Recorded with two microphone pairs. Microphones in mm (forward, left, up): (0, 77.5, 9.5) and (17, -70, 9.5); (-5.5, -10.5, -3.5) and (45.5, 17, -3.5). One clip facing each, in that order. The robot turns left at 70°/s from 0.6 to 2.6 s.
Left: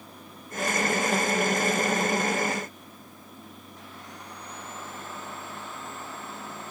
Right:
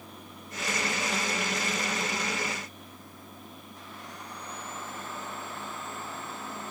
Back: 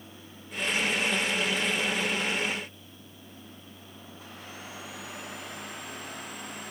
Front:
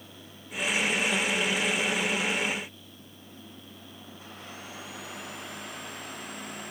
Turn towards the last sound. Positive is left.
No sound to turn to.